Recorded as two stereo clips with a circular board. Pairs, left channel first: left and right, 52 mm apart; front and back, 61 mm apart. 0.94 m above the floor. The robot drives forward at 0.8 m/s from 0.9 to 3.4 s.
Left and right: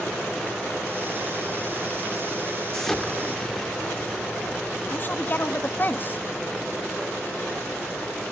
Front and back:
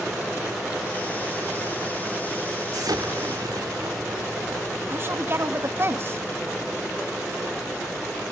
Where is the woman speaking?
135° left, 1.7 m.